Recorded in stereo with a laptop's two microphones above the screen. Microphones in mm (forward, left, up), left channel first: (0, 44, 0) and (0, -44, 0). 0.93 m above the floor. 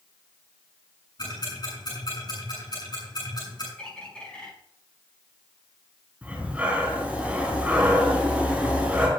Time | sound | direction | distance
1.2 | ticking | 50° left (ahead or behind) | 8 m
3.8 | a bird | 10° left (ahead or behind) | 5 m
6.2 | breathing | 15° right (ahead or behind) | 4 m